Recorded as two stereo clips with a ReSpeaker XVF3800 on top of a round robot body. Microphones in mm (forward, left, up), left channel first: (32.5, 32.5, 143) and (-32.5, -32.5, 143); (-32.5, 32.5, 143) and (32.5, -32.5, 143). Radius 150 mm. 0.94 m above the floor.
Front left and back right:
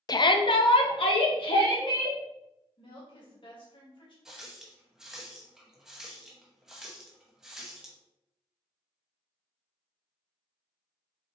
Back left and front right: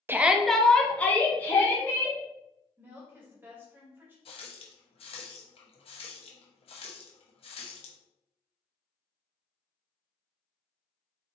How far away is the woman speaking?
About 2 m.